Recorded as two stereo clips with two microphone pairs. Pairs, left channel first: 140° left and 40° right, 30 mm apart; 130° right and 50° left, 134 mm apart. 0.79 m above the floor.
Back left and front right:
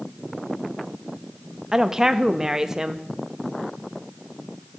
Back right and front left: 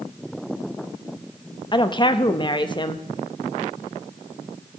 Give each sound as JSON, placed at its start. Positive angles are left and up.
{"t": 1.7, "sound": "a woman speaking", "azimuth_deg": -100, "distance_m": 0.6}